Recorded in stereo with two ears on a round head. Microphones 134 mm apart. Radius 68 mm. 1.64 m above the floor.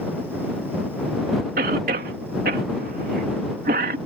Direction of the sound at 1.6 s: 60° right (ahead or behind).